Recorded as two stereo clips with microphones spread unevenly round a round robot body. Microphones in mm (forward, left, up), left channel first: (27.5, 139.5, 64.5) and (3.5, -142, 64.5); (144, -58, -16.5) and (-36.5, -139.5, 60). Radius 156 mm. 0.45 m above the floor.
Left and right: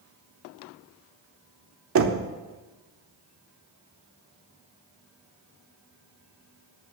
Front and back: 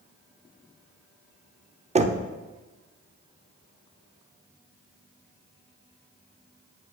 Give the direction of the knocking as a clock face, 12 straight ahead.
3 o'clock.